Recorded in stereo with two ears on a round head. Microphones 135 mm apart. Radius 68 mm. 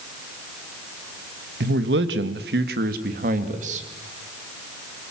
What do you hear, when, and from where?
1.6 s a man speaking: 75° right (ahead or behind), 1.9 m; by 3.9 s 50° right (ahead or behind), 2.5 m